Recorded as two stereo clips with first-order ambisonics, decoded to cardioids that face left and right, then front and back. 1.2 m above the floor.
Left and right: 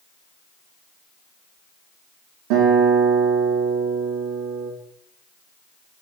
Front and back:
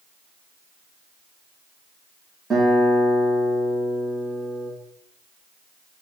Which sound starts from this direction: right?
A guitar, at 2.5 s.